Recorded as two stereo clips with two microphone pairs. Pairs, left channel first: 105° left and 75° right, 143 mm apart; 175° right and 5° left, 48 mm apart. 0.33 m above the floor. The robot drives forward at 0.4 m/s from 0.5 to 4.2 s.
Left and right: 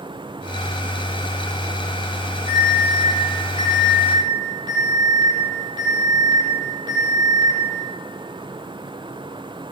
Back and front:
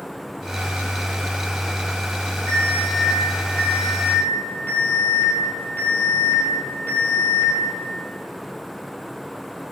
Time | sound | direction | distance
2.5 | an alarm | 130° right | 8 m